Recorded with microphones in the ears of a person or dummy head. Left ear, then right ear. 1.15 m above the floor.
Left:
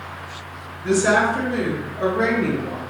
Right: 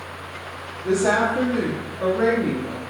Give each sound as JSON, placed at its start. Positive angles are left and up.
{"t": 0.8, "sound": "a woman speaking", "side_deg": 45, "distance_m": 1.5}